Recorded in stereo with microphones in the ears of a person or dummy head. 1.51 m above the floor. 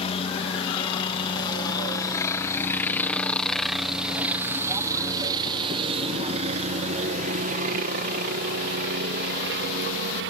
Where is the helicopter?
30° left (ahead or behind); by 10.3 s 65° right (ahead or behind).